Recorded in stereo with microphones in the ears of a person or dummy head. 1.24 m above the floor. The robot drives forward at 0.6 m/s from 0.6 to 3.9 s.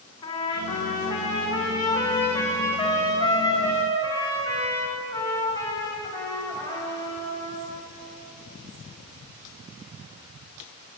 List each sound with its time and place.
0.2 s a trumpet: 20° left (ahead or behind), 2 m; by 7.7 s 10° left (ahead or behind), 4 m